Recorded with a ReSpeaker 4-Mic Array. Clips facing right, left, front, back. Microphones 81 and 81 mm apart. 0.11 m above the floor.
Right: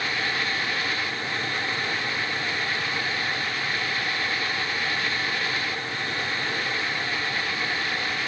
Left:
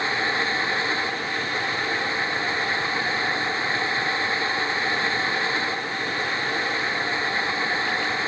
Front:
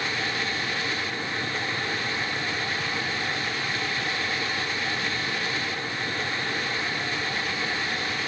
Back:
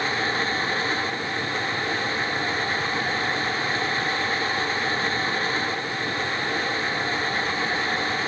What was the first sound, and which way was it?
Only background noise.